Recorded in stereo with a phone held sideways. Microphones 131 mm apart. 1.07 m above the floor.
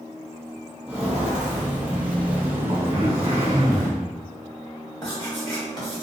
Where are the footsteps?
5° right (ahead or behind), 1.3 m; by 3.9 s 20° right (ahead or behind), 1.3 m.